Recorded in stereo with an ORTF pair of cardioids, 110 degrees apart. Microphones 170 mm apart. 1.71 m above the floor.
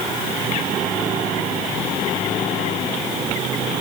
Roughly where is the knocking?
No knocking in this recording.